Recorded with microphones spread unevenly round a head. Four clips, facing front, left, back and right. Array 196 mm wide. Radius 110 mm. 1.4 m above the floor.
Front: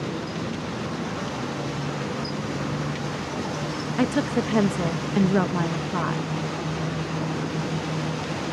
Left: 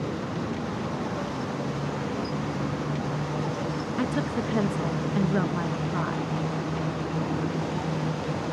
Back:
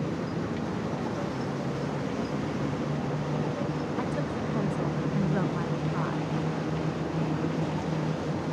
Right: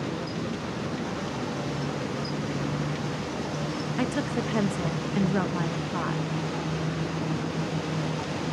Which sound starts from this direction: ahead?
A woman speaking, at 4.0 s.